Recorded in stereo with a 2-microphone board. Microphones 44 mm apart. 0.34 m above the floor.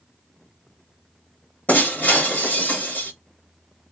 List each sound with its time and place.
1.7 s breaking glass: 50° left (ahead or behind), 1.0 m